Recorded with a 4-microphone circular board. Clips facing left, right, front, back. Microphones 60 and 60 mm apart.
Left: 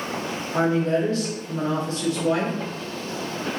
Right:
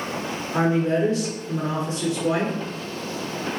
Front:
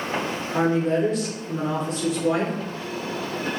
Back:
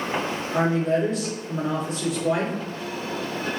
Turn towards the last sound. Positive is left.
turn(degrees=-90)